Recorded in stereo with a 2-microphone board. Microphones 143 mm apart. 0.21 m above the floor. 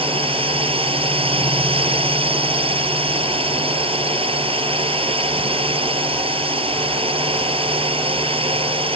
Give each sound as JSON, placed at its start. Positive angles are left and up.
{"t": 0.0, "sound": "a drone", "side_deg": -40}